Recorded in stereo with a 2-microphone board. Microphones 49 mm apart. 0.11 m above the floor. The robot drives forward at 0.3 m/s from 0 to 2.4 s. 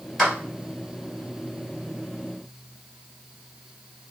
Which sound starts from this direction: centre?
A clap, at 0.2 s.